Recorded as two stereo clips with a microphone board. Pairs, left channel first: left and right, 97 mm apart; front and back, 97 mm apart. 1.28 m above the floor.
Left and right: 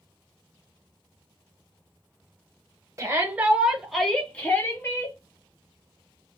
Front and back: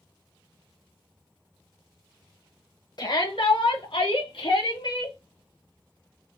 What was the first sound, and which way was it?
A shout, 35° right.